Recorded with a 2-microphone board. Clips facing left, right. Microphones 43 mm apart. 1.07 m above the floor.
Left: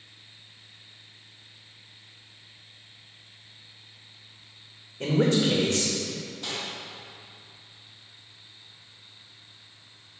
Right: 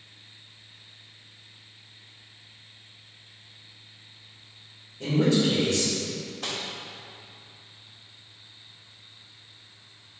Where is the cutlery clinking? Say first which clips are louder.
Right 1 dB; 70° right (ahead or behind), 1.7 m.